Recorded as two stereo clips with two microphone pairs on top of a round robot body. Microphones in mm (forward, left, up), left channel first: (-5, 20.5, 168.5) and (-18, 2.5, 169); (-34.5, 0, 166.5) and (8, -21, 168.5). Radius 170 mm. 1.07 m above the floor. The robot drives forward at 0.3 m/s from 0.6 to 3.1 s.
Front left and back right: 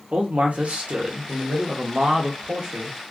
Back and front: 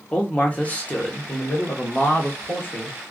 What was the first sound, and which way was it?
A man speaking, 140° right.